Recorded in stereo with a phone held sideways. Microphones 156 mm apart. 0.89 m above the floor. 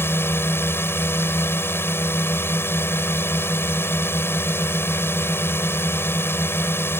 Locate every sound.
0.0 s a drone: 15° left (ahead or behind)